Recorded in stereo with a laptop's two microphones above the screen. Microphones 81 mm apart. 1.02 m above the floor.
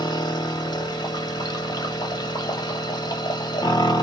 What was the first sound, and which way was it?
A machine running, 55° left (ahead or behind).